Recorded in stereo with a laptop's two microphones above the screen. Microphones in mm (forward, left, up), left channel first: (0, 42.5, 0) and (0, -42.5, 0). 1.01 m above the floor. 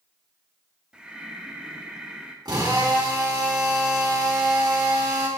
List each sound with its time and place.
0.9 s breathing: 10° right (ahead or behind), 0.9 m
2.5 s a drill: 55° right (ahead or behind), 2.5 m